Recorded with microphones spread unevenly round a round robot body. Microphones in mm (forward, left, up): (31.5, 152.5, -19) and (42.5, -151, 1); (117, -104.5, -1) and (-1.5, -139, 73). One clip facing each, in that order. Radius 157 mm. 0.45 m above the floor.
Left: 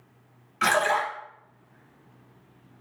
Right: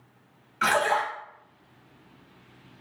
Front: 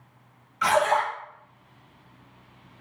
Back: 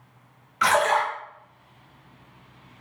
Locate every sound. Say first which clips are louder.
0.6 s a splash: even, even; 175° left, 0.6 m